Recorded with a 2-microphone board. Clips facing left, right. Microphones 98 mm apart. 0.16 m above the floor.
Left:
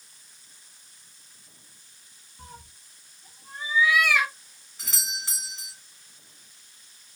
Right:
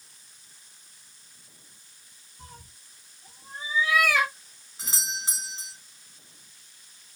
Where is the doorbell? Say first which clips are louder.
Right 2 dB; 20° right (ahead or behind), 1.6 m.